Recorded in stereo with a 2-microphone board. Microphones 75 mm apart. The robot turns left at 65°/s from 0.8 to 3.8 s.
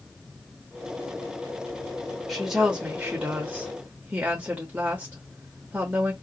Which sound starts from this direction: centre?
A woman speaking, at 2.3 s.